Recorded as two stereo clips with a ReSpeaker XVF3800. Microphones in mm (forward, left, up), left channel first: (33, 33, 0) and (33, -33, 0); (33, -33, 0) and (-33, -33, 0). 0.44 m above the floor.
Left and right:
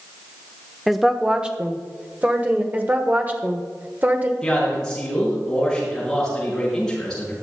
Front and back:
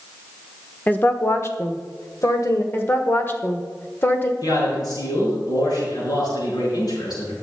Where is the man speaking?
10° left, 5.5 m.